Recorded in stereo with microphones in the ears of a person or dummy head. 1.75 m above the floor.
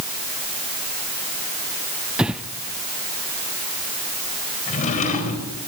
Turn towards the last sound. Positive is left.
turn(degrees=45)  # may be behind; listen again after turning